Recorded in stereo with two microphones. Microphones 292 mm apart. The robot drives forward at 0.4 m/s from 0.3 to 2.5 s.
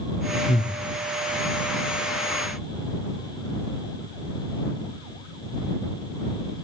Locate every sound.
0.5 s breathing: 20° left (ahead or behind), 1.4 m; by 0.8 s 25° left (ahead or behind), 1.3 m